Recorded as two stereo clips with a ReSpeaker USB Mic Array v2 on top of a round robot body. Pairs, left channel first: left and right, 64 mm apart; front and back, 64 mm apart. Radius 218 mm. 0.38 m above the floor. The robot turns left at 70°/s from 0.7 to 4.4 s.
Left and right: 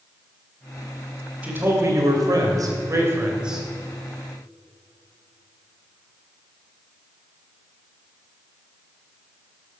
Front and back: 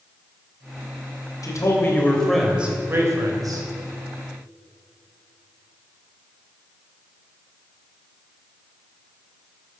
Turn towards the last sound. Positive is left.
turn(degrees=130)